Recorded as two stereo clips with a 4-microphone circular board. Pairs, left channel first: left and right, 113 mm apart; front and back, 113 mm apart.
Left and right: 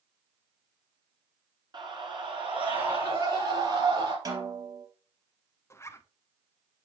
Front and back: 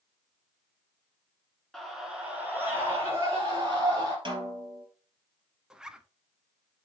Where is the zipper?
105° left, 0.6 m.